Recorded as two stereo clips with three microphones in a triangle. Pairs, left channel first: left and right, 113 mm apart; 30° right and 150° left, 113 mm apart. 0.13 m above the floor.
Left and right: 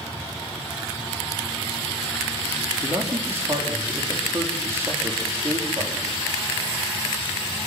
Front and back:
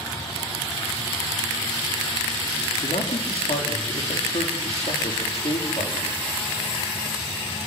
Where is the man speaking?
25° right, 5 m.